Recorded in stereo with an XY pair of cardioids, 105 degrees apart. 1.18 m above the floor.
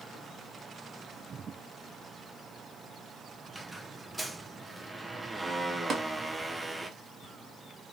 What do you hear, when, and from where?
3.5 s a squeak: 15° right, 0.7 m
5.9 s tapping: 50° right, 1.1 m